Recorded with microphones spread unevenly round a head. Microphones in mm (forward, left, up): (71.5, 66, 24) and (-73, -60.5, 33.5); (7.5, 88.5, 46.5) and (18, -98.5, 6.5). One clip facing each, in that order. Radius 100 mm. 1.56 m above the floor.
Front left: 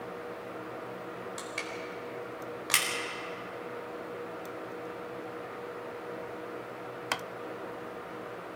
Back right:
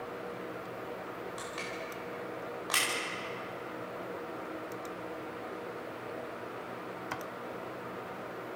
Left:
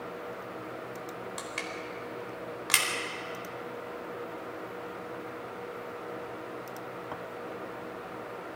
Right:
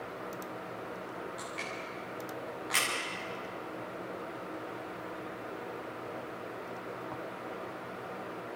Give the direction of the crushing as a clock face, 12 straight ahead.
9 o'clock.